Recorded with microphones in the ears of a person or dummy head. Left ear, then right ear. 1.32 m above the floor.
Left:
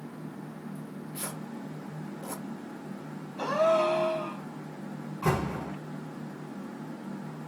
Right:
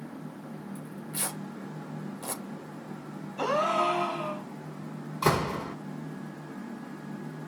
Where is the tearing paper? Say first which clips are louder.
Right 5 dB; 70° right (ahead or behind), 3 m.